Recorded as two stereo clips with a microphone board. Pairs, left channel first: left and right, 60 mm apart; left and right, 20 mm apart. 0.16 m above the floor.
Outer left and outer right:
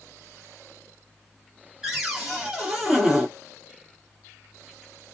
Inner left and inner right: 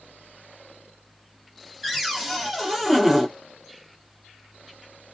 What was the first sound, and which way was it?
A cupboard door, 10° right (ahead or behind).